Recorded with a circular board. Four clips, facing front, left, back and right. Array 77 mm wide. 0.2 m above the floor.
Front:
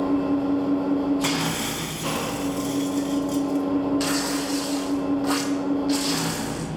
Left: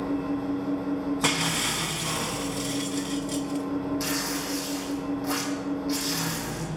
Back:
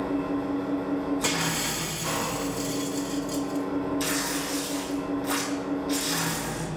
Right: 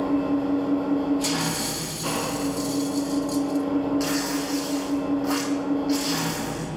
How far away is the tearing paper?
About 2 m.